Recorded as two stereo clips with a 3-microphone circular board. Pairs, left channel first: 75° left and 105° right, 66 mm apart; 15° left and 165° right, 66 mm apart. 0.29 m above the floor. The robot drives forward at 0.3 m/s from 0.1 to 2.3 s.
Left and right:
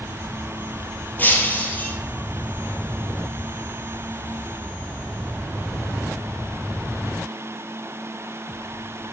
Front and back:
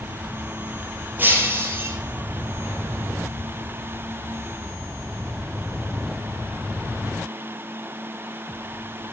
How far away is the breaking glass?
About 1.7 m.